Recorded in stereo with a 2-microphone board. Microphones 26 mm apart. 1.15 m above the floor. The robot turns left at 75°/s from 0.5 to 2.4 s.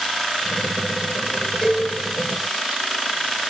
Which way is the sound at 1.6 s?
15° left (ahead or behind).